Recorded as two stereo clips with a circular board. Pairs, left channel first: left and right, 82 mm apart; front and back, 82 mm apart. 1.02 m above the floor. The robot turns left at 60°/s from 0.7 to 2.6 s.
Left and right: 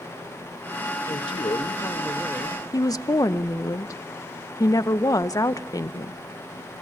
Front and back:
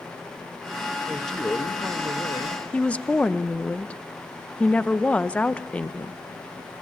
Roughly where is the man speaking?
Left.